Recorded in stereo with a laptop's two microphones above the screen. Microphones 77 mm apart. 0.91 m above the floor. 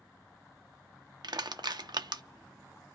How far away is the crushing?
About 0.5 m.